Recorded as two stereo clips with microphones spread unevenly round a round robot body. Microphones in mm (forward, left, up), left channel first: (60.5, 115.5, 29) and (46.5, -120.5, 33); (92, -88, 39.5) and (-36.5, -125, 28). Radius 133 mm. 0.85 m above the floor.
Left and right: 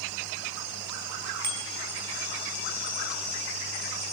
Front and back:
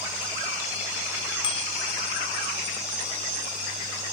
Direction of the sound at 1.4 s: 25° right.